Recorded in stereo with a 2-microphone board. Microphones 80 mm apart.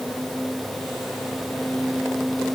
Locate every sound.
Only background noise.